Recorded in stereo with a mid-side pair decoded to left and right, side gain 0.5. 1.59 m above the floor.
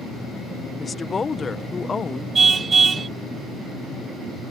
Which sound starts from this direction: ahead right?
A car horn, at 2.4 s.